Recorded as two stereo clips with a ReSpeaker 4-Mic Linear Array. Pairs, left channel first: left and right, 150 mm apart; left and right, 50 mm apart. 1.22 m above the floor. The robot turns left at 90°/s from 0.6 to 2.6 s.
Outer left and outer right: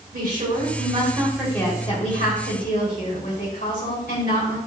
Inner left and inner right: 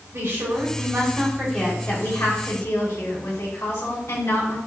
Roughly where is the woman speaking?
Right.